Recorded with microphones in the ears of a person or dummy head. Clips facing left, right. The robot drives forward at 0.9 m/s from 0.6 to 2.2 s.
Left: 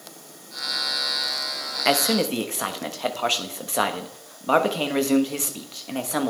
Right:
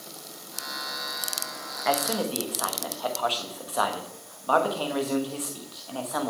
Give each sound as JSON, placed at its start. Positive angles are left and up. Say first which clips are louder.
{"t": 1.9, "sound": "a man speaking", "louder": "left 5 dB", "side_deg": 45, "distance_m": 0.9}